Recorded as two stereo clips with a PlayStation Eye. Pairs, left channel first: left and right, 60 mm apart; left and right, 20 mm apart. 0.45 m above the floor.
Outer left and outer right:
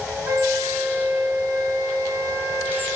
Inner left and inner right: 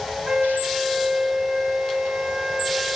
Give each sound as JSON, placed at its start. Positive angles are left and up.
{"t": 0.3, "sound": "a flute", "side_deg": -75, "distance_m": 2.0}